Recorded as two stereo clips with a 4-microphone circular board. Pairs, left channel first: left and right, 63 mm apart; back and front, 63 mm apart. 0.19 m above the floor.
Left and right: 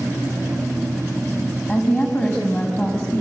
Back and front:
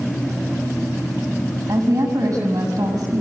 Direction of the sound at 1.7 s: 35° left.